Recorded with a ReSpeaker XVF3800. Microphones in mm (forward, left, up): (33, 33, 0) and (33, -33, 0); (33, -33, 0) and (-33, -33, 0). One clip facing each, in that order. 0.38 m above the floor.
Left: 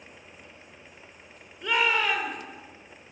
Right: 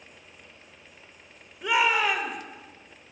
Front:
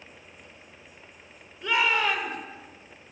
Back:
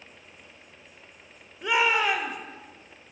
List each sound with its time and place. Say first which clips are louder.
1.6 s a shout: right 2 dB, back 1 dB; 145° right, 1.4 m